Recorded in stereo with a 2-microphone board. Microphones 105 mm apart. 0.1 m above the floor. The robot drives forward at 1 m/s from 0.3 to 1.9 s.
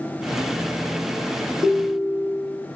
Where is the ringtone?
10° right (ahead or behind), 3 m.